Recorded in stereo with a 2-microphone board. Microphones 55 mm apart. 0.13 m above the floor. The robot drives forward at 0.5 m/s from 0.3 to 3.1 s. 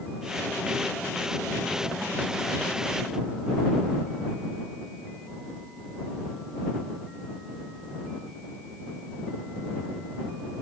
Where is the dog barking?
No dog barking in this recording.